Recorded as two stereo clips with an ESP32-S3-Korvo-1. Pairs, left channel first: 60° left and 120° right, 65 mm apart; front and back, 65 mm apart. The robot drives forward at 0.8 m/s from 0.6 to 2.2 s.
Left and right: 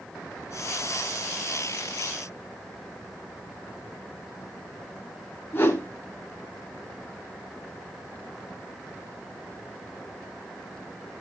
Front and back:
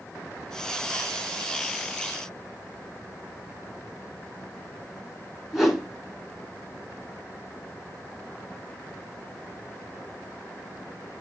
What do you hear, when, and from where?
5.5 s a whoosh: 100° left, 1.6 m